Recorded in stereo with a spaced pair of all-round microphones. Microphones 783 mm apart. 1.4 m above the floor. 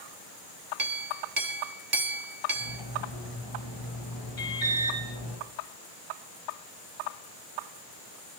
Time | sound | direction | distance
0.8 | a clink | 55° right (ahead or behind) | 1.5 m
2.5 | cutlery clinking | 30° left (ahead or behind) | 5.5 m
4.4 | an alarm | 65° left (ahead or behind) | 5 m